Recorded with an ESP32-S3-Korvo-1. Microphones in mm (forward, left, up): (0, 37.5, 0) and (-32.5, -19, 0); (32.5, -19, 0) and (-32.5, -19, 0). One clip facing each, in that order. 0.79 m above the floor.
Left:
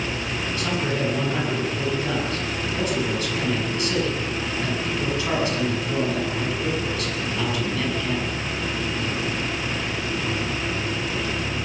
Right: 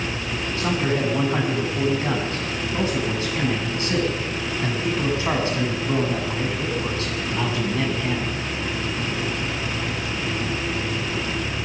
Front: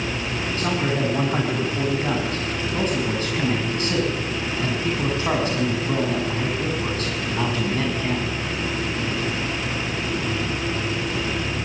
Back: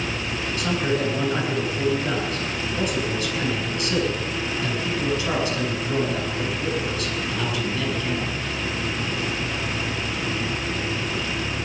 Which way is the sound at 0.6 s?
55° right.